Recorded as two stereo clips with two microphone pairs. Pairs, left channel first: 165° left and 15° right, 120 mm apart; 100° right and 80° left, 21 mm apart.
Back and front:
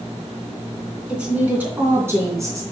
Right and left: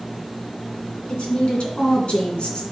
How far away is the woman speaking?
About 3 m.